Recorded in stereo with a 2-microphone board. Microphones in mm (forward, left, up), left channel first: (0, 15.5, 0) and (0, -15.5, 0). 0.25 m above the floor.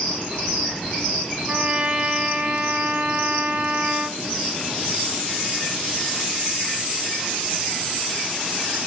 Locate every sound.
1.5 s a trumpet: 45° right (ahead or behind), 1.0 m